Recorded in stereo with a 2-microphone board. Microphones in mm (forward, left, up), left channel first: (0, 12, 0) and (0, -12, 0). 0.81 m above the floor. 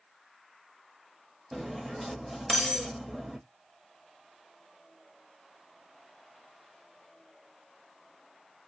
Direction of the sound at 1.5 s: Centre (ahead or behind).